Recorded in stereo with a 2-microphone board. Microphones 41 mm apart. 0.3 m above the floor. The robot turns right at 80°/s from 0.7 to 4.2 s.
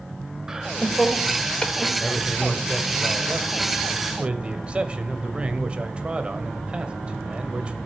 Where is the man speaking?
135° left, 1.1 m; by 7.8 s 50° right, 1.1 m.